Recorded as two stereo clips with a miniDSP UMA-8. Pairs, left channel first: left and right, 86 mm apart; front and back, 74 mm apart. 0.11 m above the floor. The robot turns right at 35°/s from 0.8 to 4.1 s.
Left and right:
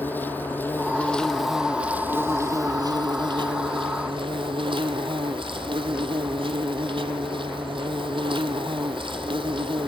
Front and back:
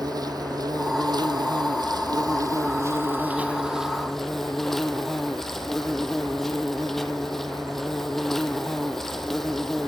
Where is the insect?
160° left, 1.1 m; by 9.9 s 85° right, 1.1 m.